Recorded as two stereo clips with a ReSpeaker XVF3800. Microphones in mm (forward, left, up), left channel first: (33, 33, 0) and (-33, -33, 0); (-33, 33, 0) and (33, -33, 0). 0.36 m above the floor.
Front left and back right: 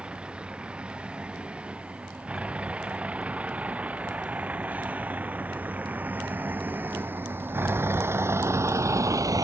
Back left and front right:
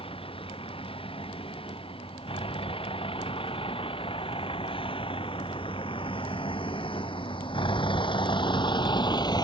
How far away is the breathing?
I don't hear breathing.